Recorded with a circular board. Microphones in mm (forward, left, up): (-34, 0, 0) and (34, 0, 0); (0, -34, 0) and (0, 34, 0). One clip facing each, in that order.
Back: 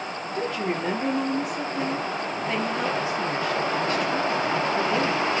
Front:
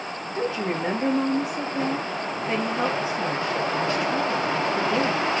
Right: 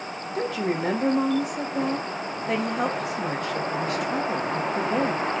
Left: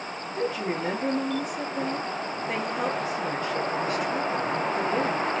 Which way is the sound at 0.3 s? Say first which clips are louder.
Front 1 dB, right 2 dB; 65° right.